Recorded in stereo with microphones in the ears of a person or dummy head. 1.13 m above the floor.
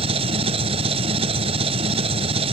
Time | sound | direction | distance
0.0 | an engine running | 35° right (ahead or behind) | ?